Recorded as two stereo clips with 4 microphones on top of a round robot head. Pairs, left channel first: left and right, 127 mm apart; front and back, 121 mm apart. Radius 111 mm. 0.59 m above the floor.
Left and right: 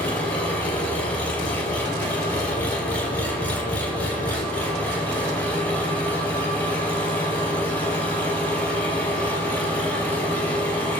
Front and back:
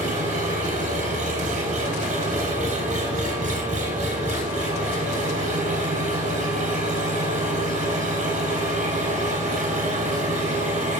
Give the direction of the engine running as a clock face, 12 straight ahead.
6 o'clock.